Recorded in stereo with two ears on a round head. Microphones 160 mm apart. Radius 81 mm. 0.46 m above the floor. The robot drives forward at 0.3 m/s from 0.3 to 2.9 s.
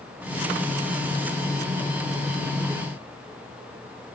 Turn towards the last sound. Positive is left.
No sound to turn to.